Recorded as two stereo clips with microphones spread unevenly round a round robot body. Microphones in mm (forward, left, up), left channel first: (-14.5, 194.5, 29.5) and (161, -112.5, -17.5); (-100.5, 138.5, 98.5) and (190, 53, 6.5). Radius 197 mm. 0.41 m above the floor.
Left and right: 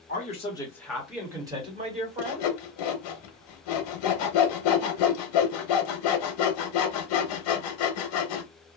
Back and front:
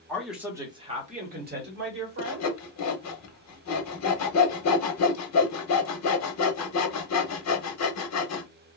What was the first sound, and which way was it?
A man speaking, 60° left.